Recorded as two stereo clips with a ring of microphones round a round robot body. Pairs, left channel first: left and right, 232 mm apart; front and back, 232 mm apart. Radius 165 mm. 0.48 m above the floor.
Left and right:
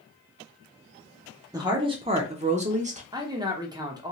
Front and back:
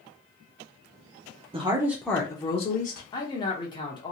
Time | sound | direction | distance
1.5 | a woman speaking | 145° right | 0.7 m
3.1 | a man speaking | 45° right | 0.8 m